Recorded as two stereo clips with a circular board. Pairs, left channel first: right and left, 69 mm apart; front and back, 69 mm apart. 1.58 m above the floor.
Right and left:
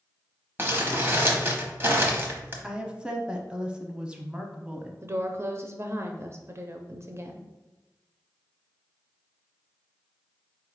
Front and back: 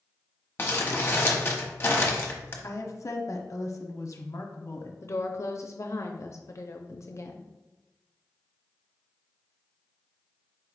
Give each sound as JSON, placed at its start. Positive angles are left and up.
{"t": 0.6, "sound": "crumpling", "azimuth_deg": 45, "distance_m": 0.9}
{"t": 2.6, "sound": "a woman speaking", "azimuth_deg": 15, "distance_m": 0.7}
{"t": 5.0, "sound": "a woman speaking", "azimuth_deg": 40, "distance_m": 0.5}